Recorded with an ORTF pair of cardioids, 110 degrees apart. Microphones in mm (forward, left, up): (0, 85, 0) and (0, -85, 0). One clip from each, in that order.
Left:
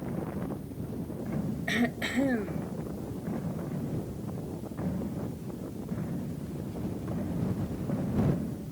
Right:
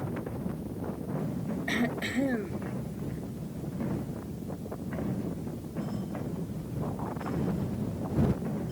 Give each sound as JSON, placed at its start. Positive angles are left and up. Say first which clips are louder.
{"t": 1.7, "sound": "throat clearing", "louder": "left 1 dB", "azimuth_deg": 10}